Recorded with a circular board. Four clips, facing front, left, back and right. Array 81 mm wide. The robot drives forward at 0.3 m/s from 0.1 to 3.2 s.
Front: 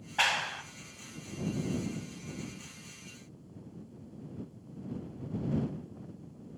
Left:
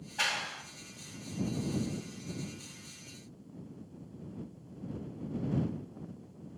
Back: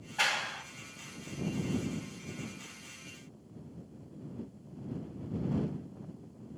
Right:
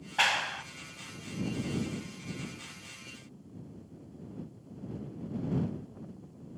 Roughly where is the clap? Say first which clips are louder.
Right 6 dB, front 2 dB; ahead right.